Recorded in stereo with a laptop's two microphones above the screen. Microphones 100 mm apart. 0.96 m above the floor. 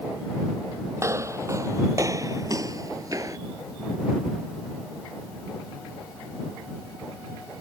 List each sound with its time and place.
1.0 s footsteps: 30° right (ahead or behind); by 3.4 s 35° right (ahead or behind)